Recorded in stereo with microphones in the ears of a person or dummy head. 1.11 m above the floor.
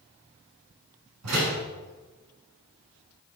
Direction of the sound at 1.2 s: 80° right.